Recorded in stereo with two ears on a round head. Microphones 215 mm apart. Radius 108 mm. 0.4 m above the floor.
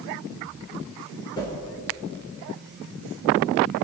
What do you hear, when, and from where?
1.4 s a whoosh: 20° left (ahead or behind), 5 m